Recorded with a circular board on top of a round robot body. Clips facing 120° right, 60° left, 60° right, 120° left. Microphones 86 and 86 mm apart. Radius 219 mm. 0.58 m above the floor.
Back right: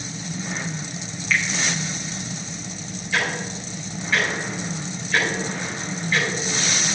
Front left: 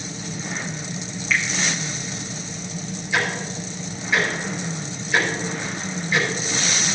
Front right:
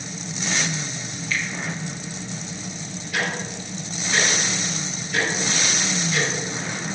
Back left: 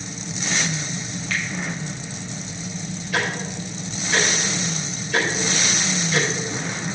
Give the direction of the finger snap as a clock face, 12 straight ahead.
7 o'clock.